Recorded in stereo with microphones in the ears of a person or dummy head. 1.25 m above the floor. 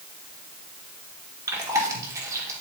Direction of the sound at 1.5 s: 15° right (ahead or behind).